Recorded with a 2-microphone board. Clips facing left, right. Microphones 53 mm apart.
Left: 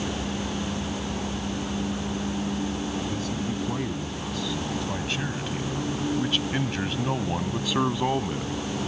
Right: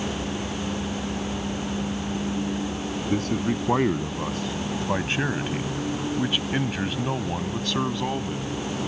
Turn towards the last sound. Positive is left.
turn(degrees=20)  # may be behind; listen again after turning